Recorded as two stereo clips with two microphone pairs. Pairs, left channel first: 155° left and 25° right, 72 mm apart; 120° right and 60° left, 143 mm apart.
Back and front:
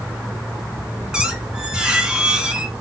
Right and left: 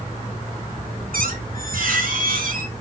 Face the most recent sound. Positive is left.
turn(degrees=50)